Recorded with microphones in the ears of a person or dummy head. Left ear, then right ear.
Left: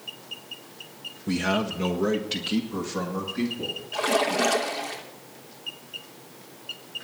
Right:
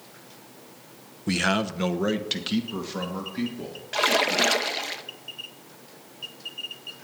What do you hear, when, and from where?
1.3 s a man speaking: 30° right (ahead or behind), 0.6 m
3.9 s a splash: 50° right (ahead or behind), 0.9 m